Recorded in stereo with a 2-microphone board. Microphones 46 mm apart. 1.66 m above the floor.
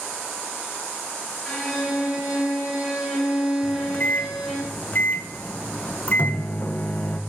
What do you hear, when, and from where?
1.4 s a violin: centre (ahead or behind), 4.5 m
3.6 s a microwave: 35° left (ahead or behind), 1.1 m